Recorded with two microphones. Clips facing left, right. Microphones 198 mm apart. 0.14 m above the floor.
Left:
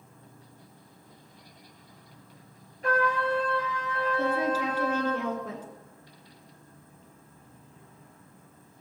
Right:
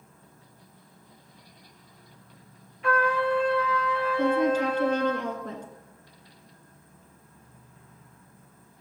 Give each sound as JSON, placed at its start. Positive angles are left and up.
{"t": 0.0, "sound": "an insect", "side_deg": 30, "distance_m": 2.0}
{"t": 2.8, "sound": "a trumpet", "side_deg": 45, "distance_m": 2.5}
{"t": 4.2, "sound": "a woman speaking", "side_deg": 5, "distance_m": 2.0}